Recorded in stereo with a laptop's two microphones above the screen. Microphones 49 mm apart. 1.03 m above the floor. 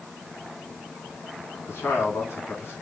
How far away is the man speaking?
About 1.9 m.